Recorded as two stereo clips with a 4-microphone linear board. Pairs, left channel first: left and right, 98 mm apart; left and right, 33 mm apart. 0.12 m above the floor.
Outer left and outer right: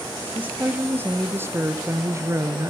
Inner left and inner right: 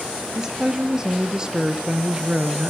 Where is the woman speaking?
20° right (ahead or behind), 3 m; by 2.7 s 35° right (ahead or behind), 1.7 m.